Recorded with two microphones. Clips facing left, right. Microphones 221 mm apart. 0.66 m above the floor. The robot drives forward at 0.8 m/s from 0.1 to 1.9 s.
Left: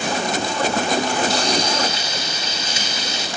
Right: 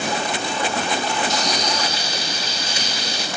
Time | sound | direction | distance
1.3 | frying | 35° left (ahead or behind) | 1.2 m